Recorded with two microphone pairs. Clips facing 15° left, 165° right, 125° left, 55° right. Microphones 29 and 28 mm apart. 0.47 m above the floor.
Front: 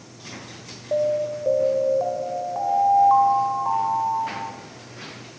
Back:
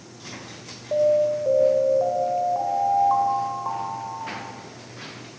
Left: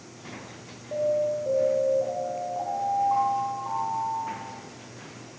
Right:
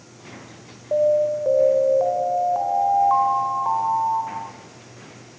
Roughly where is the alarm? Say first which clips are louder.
Back 3 dB, right 7 dB; ahead right.